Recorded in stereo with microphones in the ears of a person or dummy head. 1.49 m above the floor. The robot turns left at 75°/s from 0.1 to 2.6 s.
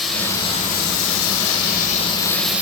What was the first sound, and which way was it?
Running water, straight behind.